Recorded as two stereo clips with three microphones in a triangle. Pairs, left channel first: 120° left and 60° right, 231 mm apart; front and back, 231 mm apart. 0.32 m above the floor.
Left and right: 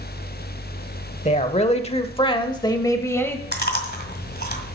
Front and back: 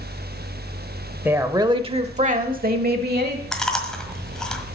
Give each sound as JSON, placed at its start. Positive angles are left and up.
{"t": 1.2, "sound": "a woman speaking", "azimuth_deg": 105, "distance_m": 1.0}
{"t": 3.5, "sound": "chewing", "azimuth_deg": 85, "distance_m": 1.6}